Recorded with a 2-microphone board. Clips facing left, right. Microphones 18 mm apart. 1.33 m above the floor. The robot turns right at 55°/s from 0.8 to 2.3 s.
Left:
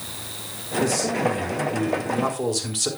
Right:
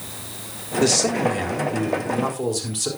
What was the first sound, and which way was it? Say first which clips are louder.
A man speaking: right 3 dB; 70° right.